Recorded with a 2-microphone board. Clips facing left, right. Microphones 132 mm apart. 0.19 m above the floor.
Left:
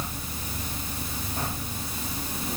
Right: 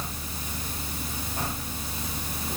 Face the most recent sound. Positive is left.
No sound to turn to.